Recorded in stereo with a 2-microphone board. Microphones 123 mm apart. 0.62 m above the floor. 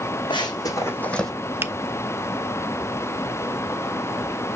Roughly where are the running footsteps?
Left.